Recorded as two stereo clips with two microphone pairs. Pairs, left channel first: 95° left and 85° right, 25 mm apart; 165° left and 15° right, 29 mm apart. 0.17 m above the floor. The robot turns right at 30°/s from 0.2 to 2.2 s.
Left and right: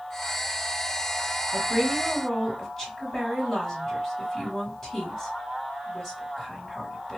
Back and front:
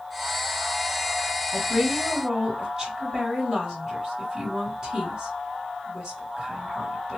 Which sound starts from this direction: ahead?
A woman speaking, at 1.5 s.